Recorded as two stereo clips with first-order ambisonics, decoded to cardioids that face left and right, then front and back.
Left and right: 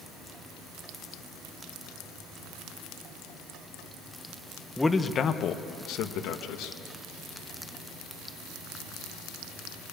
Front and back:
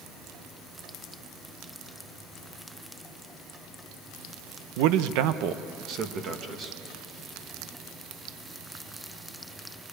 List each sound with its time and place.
4.8 s a man speaking: straight behind, 0.9 m; by 6.8 s 115° left, 1.9 m